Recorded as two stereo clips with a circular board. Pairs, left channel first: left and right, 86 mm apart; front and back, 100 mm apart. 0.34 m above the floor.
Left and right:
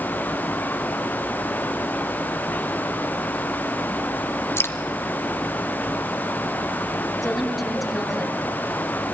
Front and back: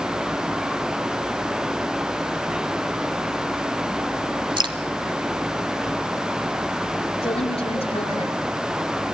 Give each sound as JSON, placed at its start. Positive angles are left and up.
{"t": 4.6, "sound": "dripping", "azimuth_deg": 150, "distance_m": 1.2}
{"t": 7.2, "sound": "a woman speaking", "azimuth_deg": 0, "distance_m": 5.5}